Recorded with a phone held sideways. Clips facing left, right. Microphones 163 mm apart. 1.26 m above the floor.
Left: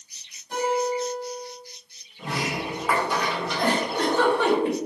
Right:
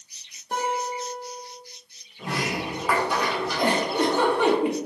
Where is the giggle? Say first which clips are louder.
Right 1 dB; 15° right (ahead or behind), 0.9 m.